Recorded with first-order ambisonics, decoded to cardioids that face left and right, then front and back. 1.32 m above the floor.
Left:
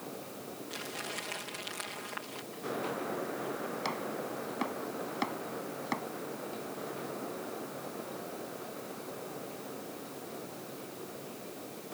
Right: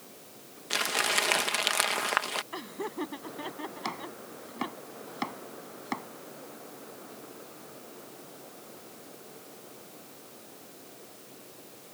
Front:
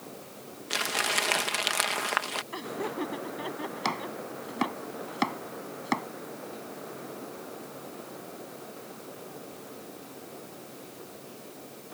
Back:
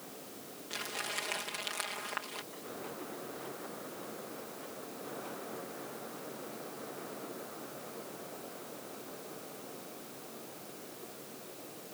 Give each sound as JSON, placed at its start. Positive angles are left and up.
{"t": 0.7, "sound": "crumpling", "azimuth_deg": -50}
{"t": 2.5, "sound": "laughter", "azimuth_deg": -40}
{"t": 3.9, "sound": "chopping", "azimuth_deg": -5}